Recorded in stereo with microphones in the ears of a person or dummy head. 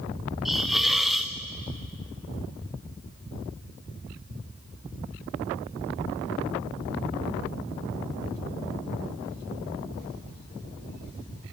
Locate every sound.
0.5 s a hiss: centre (ahead or behind), 0.6 m